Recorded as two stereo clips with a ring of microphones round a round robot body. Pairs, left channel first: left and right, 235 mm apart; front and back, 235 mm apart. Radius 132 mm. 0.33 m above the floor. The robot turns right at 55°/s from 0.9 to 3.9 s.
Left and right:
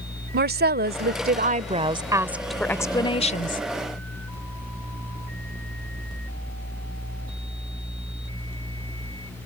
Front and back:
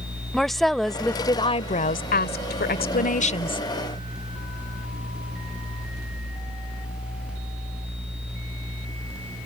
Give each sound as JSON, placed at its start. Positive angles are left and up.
{"t": 0.3, "sound": "a woman speaking", "azimuth_deg": -90}